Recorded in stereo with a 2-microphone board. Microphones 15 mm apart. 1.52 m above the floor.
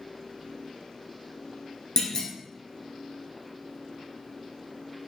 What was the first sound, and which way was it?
A clunk, 45° left (ahead or behind).